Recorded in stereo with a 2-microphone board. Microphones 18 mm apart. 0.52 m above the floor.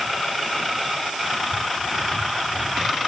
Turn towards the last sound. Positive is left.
No sound to turn to.